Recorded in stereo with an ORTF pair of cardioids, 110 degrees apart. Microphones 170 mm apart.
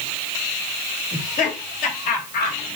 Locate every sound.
1.1 s laughter: 50° left, 4 m; by 2.6 s 55° left, 3.5 m